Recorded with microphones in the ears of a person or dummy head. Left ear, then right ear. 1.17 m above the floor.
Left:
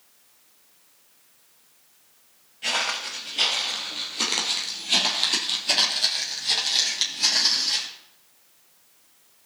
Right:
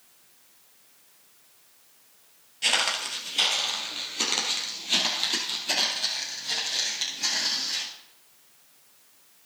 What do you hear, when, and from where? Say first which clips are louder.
2.6 s footsteps: right 1 dB; 25° right (ahead or behind), 1.7 m; by 7.9 s 30° left (ahead or behind), 3.5 m